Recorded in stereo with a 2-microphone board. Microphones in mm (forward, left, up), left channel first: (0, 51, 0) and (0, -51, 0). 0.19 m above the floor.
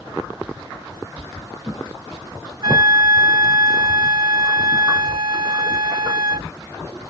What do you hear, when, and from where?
2.6 s a flute: 45° right (ahead or behind)